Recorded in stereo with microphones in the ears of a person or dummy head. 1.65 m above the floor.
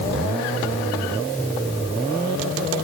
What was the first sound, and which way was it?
Only background noise.